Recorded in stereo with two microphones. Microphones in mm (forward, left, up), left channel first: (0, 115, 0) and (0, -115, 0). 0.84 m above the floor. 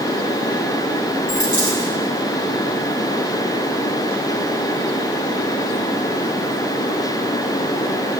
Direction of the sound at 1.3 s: 65° left (ahead or behind).